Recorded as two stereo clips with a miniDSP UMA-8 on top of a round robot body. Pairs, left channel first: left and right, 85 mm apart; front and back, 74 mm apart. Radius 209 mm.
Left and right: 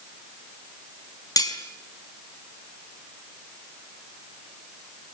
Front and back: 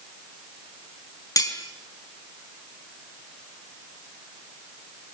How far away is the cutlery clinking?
About 4.5 m.